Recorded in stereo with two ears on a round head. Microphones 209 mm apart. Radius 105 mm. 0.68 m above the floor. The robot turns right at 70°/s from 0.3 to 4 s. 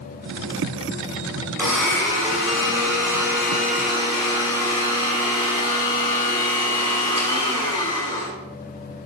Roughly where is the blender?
Ahead.